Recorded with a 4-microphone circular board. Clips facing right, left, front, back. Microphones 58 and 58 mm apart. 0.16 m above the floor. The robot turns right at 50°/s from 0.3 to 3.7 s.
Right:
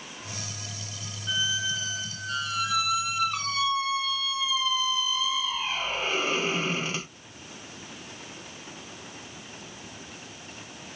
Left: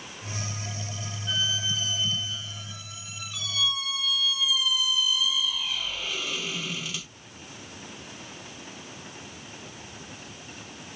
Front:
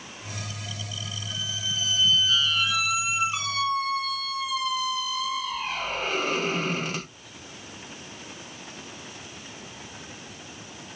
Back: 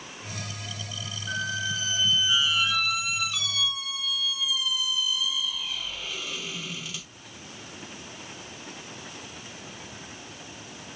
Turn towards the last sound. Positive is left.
turn(degrees=-40)